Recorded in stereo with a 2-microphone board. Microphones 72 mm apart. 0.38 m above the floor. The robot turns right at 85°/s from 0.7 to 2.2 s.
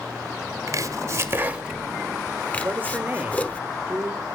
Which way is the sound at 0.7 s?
45° right (ahead or behind).